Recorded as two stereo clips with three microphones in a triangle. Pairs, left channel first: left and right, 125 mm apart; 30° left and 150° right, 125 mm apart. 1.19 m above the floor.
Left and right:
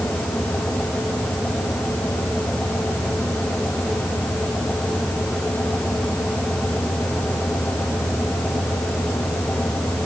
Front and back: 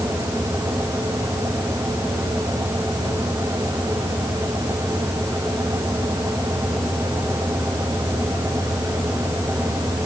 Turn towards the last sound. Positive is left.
No sound to turn to.